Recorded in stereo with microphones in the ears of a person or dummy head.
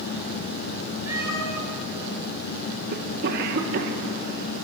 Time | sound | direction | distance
1.1 | a cat meowing | 15° right (ahead or behind) | 9 m
2.9 | a cough | 65° right (ahead or behind) | 1.9 m